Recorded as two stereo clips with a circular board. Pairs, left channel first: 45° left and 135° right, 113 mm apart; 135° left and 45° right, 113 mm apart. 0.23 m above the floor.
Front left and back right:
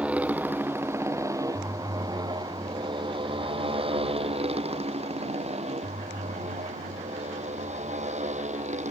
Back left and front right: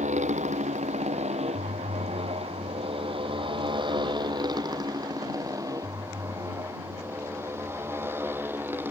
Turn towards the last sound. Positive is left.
turn(degrees=-120)